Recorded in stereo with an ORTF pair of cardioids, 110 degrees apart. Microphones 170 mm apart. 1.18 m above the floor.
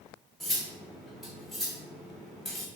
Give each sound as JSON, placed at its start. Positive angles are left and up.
{"t": 0.4, "sound": "cutlery clinking", "azimuth_deg": 0, "distance_m": 0.7}